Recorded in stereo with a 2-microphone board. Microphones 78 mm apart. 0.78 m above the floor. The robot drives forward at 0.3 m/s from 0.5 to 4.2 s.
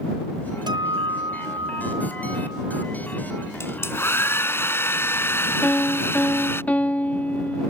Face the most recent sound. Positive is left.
turn(degrees=20)  # may be behind; listen again after turning